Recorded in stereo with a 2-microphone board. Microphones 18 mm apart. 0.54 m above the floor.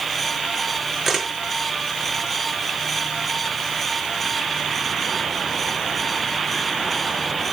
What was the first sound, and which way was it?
A camera shutter, centre (ahead or behind).